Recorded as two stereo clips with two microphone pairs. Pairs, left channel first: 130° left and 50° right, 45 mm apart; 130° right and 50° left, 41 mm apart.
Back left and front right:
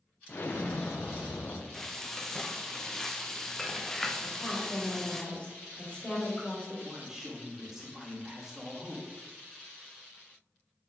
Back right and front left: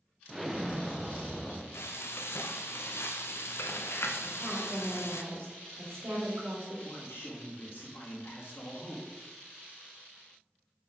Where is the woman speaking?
65° left, 2.5 m.